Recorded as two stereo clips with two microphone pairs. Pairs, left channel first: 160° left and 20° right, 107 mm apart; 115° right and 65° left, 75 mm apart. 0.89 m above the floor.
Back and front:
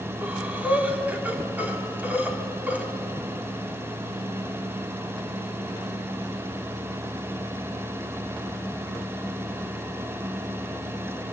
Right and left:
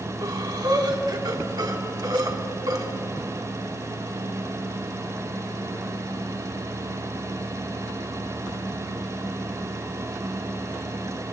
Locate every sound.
0.2 s breathing: 50° left, 2.5 m